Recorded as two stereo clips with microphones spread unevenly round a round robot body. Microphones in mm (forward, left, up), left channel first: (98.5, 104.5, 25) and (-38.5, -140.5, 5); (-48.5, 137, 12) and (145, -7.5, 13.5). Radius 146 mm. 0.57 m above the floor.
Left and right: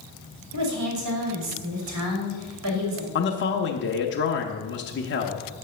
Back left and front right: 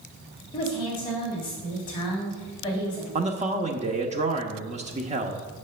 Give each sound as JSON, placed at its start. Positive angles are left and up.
{"t": 0.5, "sound": "a woman speaking", "azimuth_deg": -145, "distance_m": 2.5}
{"t": 3.1, "sound": "a man speaking", "azimuth_deg": 20, "distance_m": 0.9}